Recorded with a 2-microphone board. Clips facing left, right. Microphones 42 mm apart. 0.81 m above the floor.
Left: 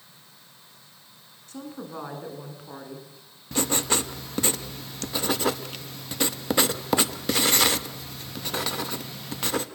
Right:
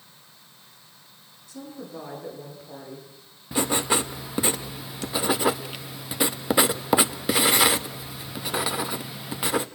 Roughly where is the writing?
Centre.